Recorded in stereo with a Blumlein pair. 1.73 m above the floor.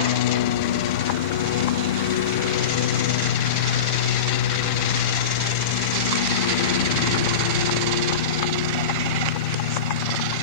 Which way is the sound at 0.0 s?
55° left.